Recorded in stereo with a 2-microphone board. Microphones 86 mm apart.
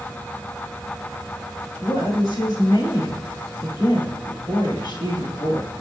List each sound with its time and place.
1.8 s a woman speaking: 65° left (ahead or behind), 2.5 m